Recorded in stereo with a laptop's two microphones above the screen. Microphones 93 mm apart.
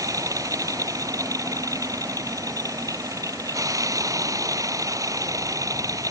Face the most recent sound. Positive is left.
turn(degrees=-40)  # may be behind; listen again after turning